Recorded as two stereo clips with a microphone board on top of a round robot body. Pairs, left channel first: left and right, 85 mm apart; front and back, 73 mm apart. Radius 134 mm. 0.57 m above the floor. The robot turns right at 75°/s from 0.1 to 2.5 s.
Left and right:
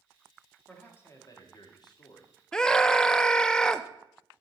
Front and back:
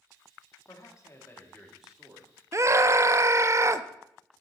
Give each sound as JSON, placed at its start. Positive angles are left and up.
{"t": 0.7, "sound": "a man speaking", "azimuth_deg": 10, "distance_m": 1.8}
{"t": 2.5, "sound": "a scream", "azimuth_deg": 170, "distance_m": 0.7}